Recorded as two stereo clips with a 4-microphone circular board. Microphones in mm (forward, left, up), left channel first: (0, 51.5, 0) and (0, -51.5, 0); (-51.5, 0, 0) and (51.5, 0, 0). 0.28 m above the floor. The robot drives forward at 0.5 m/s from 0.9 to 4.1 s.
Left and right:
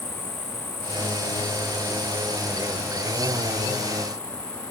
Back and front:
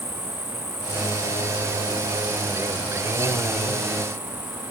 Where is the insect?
120° left; by 4.7 s 145° left.